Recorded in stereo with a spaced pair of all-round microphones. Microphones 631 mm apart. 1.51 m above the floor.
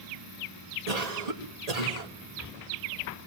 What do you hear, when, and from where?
0.9 s a cough: 80° right, 1.8 m